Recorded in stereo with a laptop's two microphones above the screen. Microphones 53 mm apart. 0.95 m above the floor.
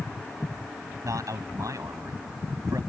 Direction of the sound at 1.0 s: 80° right.